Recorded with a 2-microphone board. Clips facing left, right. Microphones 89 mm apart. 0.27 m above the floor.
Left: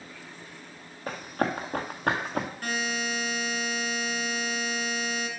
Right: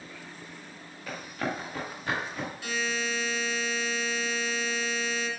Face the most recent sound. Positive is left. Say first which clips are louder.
# left 1 dB
turn(degrees=50)  # may be behind; listen again after turning